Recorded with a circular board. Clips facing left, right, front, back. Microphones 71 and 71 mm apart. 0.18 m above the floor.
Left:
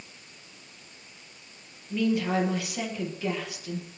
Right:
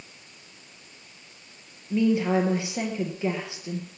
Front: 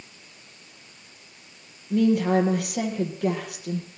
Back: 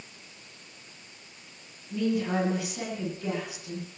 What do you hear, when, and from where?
1.9 s a woman speaking: 25° right, 4 m